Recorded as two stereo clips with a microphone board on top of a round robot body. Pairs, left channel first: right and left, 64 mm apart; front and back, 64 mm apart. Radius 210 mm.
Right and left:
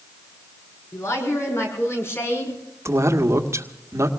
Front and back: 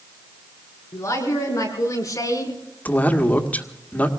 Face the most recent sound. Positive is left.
turn(degrees=60)